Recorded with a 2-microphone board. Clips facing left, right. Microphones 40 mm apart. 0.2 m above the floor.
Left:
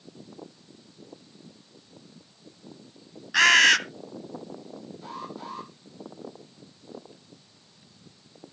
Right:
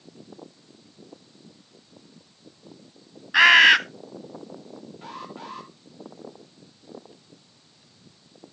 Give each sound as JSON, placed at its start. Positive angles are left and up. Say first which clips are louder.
{"t": 3.3, "sound": "a bird", "louder": "right 4 dB", "side_deg": -20, "distance_m": 0.6}
{"t": 5.0, "sound": "an alarm", "louder": "even", "side_deg": -45, "distance_m": 9.0}